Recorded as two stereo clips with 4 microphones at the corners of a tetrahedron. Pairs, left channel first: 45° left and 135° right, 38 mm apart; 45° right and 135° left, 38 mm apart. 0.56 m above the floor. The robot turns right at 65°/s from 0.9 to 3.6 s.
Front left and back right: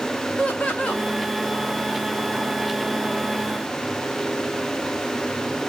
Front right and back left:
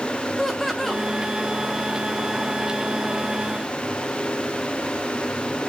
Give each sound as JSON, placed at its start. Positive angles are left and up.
{"t": 0.4, "sound": "laughter", "azimuth_deg": 30, "distance_m": 0.7}